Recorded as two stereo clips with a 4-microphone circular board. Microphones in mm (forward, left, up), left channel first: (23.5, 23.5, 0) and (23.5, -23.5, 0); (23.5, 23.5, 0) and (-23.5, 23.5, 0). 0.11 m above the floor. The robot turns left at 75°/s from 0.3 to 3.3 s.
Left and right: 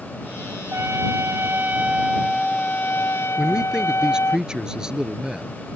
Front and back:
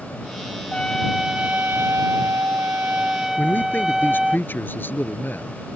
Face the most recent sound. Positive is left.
turn(degrees=-20)